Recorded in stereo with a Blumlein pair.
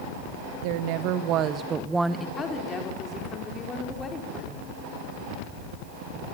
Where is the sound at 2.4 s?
15° left, 4 m.